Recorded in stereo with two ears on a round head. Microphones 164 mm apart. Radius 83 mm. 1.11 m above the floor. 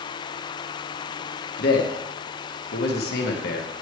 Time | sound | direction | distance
1.6 | a man speaking | 60° left (ahead or behind) | 1.3 m